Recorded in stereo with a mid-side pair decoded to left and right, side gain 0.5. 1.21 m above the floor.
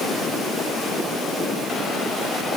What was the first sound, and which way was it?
Only background noise.